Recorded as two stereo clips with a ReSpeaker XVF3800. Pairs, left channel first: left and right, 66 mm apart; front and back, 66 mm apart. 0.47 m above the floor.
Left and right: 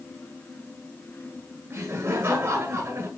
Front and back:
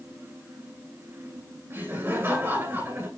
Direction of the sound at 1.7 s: 130° right.